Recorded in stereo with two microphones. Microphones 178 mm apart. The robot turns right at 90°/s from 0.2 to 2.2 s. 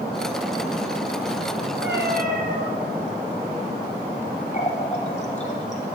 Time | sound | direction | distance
1.8 | a cat meowing | 85° right | 1.9 m
4.5 | a running tap | 40° left (ahead or behind) | 1.4 m